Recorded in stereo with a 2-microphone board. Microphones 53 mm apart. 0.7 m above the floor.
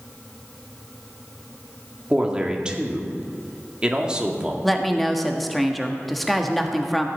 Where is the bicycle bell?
No bicycle bell in this recording.